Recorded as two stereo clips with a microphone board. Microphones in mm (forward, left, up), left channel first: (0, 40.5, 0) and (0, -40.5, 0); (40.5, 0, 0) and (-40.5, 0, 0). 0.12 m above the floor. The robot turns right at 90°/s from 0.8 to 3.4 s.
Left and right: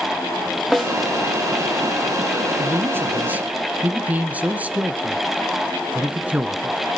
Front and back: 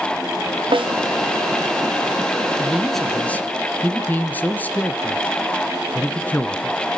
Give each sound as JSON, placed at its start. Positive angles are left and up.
{"t": 0.7, "sound": "a snare drum", "azimuth_deg": 180, "distance_m": 2.0}
{"t": 2.6, "sound": "a man speaking", "azimuth_deg": -115, "distance_m": 1.3}